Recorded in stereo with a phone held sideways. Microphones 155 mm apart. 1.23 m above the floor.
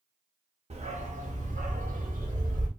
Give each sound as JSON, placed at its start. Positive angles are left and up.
{"t": 0.7, "sound": "a dog barking", "side_deg": -45, "distance_m": 1.1}